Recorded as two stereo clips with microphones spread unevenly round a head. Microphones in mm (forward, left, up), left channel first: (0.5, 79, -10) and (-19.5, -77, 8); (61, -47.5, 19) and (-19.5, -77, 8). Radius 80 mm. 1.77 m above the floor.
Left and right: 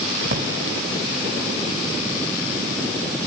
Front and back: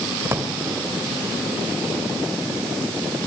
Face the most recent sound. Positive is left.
turn(degrees=-100)